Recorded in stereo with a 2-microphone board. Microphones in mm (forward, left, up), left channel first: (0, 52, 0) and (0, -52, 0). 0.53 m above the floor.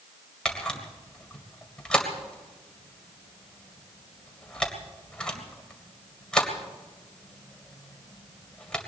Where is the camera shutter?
10° left (ahead or behind), 2 m.